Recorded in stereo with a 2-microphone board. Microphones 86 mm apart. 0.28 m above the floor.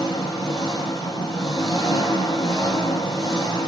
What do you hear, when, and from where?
0.0 s an engine running: 40° left (ahead or behind), 6.5 m